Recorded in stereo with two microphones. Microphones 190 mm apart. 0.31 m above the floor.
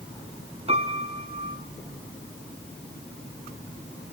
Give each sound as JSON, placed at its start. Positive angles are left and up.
{"t": 0.7, "sound": "a piano", "side_deg": -35, "distance_m": 2.0}